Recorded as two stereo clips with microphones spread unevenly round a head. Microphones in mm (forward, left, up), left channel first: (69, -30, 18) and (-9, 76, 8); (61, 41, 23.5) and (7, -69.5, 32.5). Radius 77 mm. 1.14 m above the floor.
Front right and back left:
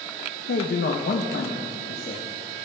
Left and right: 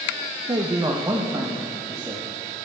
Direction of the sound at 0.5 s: 55° right.